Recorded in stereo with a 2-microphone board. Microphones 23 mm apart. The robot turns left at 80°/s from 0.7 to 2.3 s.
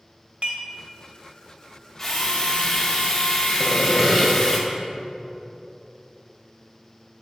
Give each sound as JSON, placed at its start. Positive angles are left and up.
{"t": 0.4, "sound": "dishes clattering", "side_deg": -70, "distance_m": 1.3}
{"t": 2.0, "sound": "a drill", "side_deg": 15, "distance_m": 1.2}
{"t": 3.6, "sound": "sawing", "side_deg": -10, "distance_m": 1.1}